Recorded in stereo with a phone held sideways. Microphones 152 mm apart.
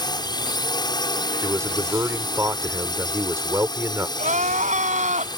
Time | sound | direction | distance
0.0 | a drone | 25° left (ahead or behind) | ?
1.4 | a man speaking | 20° right (ahead or behind) | ?
4.2 | crying | 55° right (ahead or behind) | ?